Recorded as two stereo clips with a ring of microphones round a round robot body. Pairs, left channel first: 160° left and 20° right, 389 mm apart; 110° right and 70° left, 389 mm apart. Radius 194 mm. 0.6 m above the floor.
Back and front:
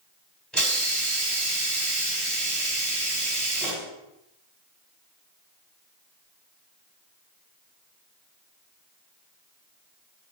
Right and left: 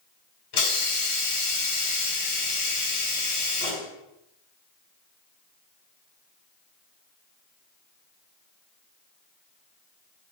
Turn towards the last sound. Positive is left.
turn(degrees=-115)